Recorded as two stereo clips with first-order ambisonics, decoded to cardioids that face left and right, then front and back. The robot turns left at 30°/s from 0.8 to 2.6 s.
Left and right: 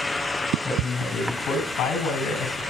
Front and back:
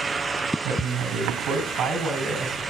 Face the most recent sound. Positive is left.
turn(degrees=110)